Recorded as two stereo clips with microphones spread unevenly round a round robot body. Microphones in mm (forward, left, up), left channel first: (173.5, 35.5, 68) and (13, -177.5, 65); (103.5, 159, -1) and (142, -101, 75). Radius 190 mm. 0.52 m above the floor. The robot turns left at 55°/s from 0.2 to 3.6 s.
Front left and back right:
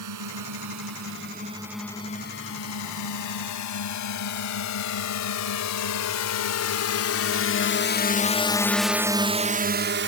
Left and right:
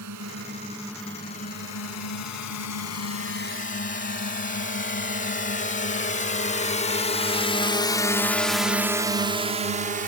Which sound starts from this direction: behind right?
A drone, at 0.0 s.